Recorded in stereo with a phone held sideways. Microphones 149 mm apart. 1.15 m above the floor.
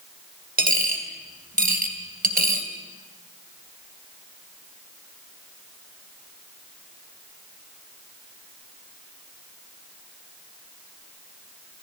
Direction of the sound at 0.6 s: 70° right (ahead or behind).